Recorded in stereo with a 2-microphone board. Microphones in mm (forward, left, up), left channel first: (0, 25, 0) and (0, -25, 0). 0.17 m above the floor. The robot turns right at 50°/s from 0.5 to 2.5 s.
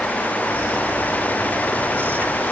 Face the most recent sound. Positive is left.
No sound to turn to.